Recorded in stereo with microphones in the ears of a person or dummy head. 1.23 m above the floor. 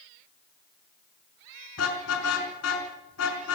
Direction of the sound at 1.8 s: 85° left.